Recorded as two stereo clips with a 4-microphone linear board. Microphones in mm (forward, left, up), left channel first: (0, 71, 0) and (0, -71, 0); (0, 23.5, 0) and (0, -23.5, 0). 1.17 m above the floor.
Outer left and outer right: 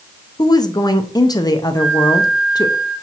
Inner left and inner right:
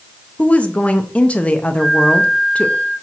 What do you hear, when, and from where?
0.4 s a woman speaking: 25° left (ahead or behind), 0.6 m
1.8 s a flute: 65° right (ahead or behind), 4.5 m